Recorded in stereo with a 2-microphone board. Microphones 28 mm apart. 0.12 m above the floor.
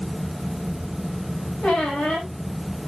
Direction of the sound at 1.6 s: 55° left (ahead or behind).